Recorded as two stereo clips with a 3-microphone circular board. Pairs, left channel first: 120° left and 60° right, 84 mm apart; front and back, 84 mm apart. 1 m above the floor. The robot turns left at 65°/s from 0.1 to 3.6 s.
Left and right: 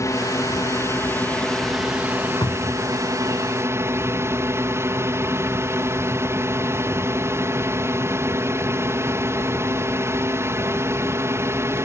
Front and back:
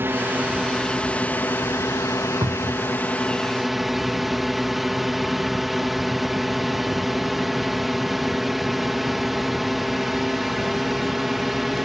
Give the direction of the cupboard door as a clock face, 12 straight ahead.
7 o'clock.